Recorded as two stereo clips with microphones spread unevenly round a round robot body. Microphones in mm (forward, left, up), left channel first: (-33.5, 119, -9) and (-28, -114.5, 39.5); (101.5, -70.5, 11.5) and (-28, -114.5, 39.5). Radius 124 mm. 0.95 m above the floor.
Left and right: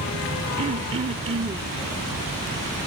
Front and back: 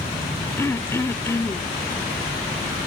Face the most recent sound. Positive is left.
turn(degrees=-55)